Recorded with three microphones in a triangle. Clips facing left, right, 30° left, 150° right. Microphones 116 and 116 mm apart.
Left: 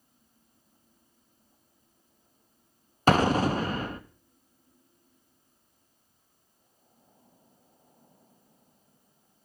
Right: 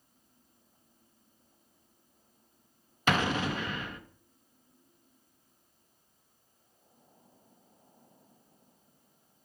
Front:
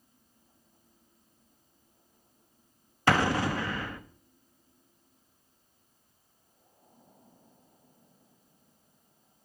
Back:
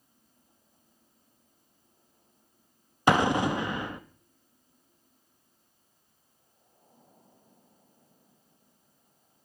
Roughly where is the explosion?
Behind left.